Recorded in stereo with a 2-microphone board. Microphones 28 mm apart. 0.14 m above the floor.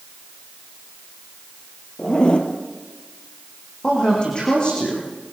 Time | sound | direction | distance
2.0 | a zipper | 35° left (ahead or behind) | 3 m
3.8 | a woman speaking | 35° left (ahead or behind) | 6.5 m